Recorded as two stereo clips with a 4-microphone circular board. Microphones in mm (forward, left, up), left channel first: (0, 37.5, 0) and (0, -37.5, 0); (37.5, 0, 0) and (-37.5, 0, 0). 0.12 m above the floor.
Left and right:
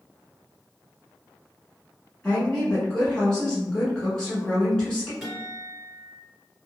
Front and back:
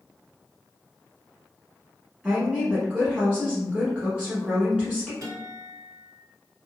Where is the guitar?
175° right, 1.9 m.